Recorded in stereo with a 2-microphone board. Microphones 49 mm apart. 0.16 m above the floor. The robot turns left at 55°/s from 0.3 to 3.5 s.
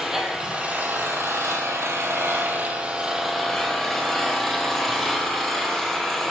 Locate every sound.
0.0 s an engine running: 10° right, 1.3 m; by 6.3 s 175° left, 1.3 m